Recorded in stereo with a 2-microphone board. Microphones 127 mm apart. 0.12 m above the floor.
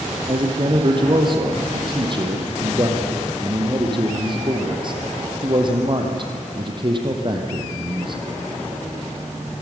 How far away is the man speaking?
About 3.5 m.